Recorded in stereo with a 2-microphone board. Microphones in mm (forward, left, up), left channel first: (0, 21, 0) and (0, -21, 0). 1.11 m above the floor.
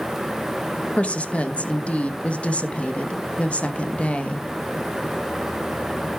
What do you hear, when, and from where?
1.0 s a woman speaking: 35° left (ahead or behind), 1.1 m